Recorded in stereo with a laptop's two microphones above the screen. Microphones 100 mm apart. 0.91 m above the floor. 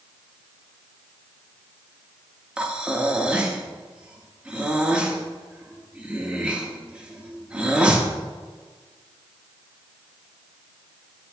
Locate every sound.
2.6 s breathing: 10° right (ahead or behind), 0.6 m